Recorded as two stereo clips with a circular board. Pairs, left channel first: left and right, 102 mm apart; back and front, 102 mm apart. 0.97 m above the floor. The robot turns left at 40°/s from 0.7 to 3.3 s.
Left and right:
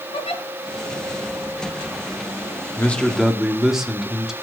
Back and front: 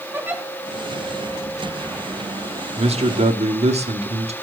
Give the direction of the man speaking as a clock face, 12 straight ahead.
11 o'clock.